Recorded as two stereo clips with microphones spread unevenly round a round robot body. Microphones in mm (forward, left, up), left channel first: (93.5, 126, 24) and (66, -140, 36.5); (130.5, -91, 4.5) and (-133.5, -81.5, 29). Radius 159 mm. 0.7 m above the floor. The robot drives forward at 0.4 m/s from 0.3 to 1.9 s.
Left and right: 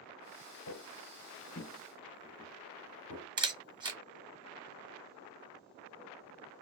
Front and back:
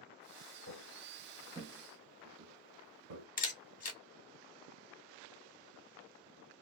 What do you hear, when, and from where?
0.7 s footsteps: 50° left, 1.3 m; by 3.3 s 150° right, 1.4 m
3.4 s a camera shutter: 25° right, 0.9 m